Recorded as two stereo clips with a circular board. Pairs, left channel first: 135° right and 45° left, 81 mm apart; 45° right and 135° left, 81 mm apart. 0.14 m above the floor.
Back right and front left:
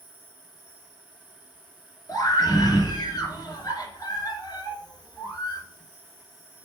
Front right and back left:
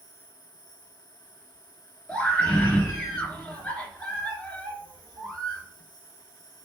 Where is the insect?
120° right, 3 m.